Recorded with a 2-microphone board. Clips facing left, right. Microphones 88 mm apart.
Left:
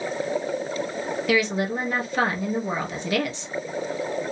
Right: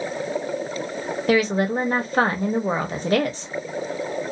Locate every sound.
1.3 s a woman speaking: 40° right (ahead or behind), 1.0 m